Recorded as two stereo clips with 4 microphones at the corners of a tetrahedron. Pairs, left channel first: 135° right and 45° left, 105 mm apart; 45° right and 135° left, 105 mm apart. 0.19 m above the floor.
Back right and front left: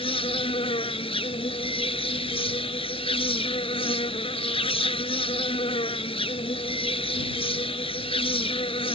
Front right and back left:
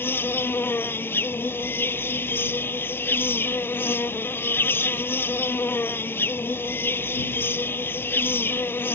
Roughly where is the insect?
Behind right.